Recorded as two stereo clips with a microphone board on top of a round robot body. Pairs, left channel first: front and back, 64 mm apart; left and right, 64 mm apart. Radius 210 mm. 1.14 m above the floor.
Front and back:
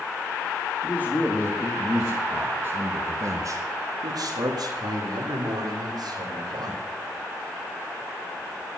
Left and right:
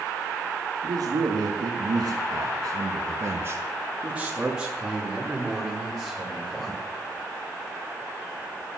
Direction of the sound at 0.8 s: 65° right.